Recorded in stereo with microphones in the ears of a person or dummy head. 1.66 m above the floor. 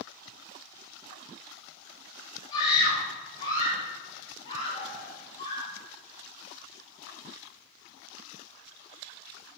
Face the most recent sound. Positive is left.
turn(degrees=25)  # may be behind; listen again after turning